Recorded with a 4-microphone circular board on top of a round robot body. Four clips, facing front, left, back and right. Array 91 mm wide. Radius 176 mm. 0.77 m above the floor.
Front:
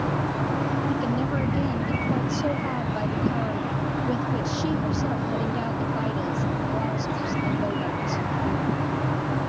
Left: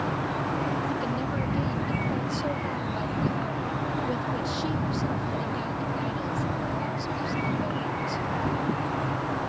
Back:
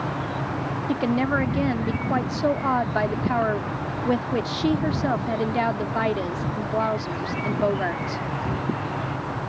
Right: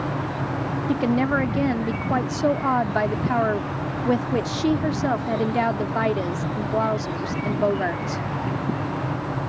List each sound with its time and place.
0.9 s a woman speaking: 125° right